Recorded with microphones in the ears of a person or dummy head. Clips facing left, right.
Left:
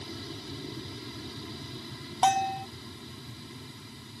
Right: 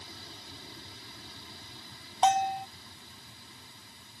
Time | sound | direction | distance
0.0 | an aircraft | 60° left (ahead or behind) | ?
2.2 | a bell | 55° left (ahead or behind) | ?